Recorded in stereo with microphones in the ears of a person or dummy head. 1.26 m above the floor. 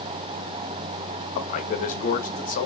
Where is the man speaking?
55° left (ahead or behind), 0.9 m.